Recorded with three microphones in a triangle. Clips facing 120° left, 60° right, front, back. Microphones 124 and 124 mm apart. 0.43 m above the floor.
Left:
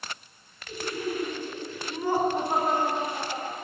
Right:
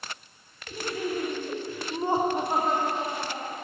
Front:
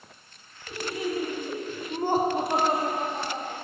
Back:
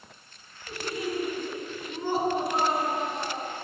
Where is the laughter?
70° right, 1.9 m; by 3.5 s 60° left, 1.9 m.